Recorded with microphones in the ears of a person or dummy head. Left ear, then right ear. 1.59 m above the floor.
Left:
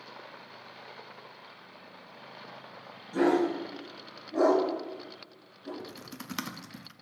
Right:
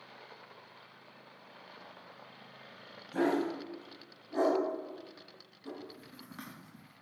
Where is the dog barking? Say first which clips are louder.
Left 5 dB; 35° right (ahead or behind), 2 m; by 5.7 s 60° right (ahead or behind), 3.5 m.